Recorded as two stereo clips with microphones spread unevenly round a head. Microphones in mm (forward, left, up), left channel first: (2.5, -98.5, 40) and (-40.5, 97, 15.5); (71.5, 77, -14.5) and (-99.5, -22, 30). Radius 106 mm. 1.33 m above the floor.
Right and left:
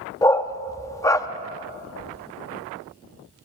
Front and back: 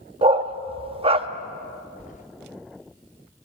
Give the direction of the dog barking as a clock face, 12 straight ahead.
5 o'clock.